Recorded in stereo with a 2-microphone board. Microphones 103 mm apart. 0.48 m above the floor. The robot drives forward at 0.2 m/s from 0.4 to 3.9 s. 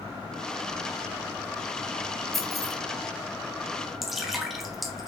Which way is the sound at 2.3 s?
Centre (ahead or behind).